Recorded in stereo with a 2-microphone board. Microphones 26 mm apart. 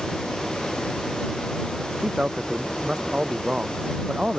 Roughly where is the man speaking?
Right.